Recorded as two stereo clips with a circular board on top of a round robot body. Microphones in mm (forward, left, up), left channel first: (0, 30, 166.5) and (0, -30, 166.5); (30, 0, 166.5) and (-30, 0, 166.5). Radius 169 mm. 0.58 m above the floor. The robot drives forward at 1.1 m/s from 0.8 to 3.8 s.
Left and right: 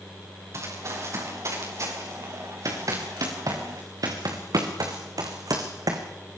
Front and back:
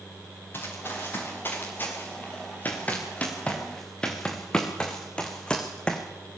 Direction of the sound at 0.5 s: 50° right.